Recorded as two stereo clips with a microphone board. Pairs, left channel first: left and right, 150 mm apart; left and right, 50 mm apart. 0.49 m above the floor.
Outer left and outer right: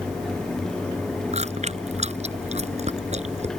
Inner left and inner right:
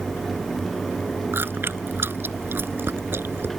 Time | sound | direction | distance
1.3 | chewing | 50° right (ahead or behind) | ?